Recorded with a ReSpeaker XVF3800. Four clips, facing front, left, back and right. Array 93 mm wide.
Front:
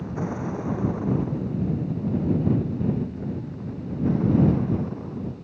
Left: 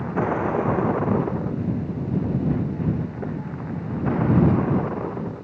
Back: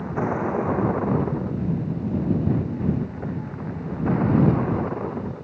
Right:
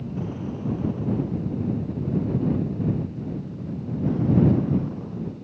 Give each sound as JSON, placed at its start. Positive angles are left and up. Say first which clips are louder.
{"t": 0.0, "sound": "a vehicle", "louder": "left 8 dB, back 5 dB", "azimuth_deg": 120}